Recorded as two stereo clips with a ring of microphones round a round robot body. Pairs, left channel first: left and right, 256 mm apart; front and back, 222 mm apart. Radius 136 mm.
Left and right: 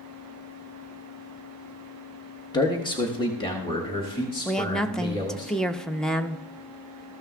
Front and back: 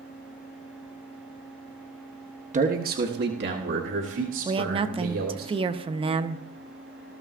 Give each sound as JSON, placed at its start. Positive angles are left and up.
{"t": 2.5, "sound": "a man speaking", "azimuth_deg": 155, "distance_m": 1.0}
{"t": 4.5, "sound": "a woman speaking", "azimuth_deg": 175, "distance_m": 0.7}